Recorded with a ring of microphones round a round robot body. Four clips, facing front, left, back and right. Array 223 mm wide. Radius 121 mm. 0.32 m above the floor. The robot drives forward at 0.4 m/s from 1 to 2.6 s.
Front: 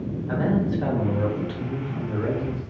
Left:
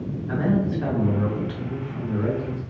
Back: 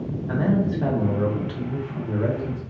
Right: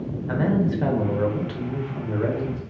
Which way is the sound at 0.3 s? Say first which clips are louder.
Right 1 dB, back 1 dB; 95° right.